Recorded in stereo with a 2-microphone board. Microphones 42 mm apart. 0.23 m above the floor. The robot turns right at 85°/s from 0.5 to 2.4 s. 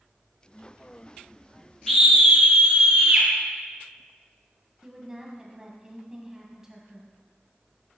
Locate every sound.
1.9 s a scream: 175° left, 2.5 m; by 3.3 s 140° right, 2.5 m
4.8 s a woman speaking: 15° right (ahead or behind), 1.5 m